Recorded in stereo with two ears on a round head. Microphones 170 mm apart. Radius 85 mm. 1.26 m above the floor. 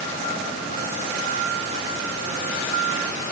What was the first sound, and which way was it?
Only background noise.